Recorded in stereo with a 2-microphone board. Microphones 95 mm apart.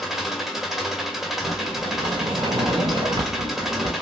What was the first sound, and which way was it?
An engine running, 5° right (ahead or behind).